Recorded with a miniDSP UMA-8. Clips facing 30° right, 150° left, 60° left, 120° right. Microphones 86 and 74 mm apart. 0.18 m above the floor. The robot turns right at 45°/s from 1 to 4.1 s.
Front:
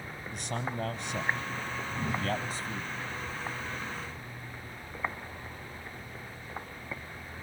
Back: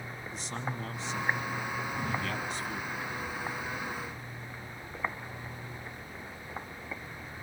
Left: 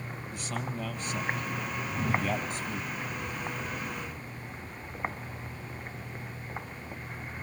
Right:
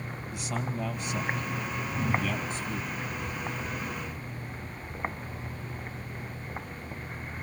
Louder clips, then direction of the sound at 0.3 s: Front 3 dB, right 2 dB; 40° right.